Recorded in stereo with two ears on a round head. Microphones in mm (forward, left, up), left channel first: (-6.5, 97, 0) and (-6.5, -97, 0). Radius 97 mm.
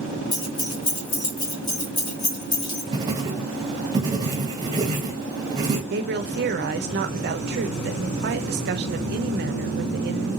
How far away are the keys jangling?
About 1.1 m.